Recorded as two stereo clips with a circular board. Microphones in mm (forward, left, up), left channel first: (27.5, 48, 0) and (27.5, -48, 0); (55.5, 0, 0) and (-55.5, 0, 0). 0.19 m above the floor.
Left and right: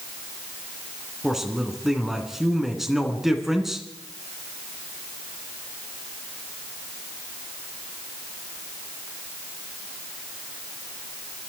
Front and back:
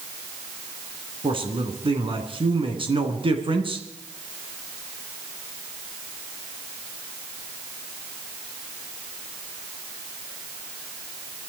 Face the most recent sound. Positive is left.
turn(degrees=-175)